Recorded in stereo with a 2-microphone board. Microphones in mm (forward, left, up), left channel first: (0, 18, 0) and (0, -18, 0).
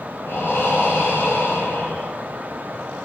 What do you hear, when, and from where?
0.3 s breathing: 85° left, 6 m